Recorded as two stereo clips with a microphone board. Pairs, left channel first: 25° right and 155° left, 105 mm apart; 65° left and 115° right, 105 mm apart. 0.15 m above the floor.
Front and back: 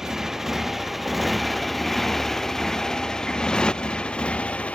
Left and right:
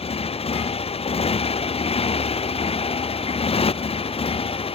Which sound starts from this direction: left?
A motorcycle, at 0.0 s.